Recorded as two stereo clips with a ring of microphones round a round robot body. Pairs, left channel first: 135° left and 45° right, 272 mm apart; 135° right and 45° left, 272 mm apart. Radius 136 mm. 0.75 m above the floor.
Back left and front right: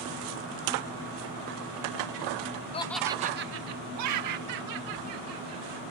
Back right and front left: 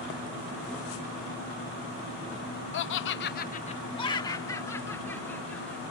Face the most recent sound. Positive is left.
turn(degrees=-50)